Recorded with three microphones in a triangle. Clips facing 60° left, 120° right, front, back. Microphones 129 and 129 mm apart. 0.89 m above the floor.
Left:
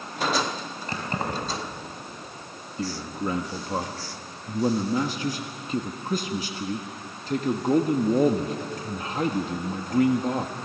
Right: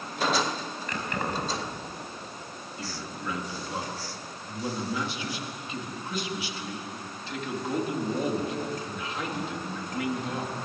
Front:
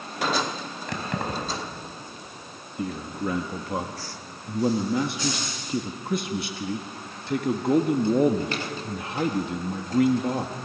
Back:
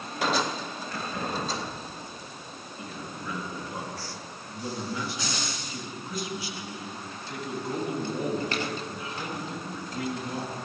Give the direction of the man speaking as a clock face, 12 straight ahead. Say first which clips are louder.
Left 9 dB, front 10 dB; 11 o'clock.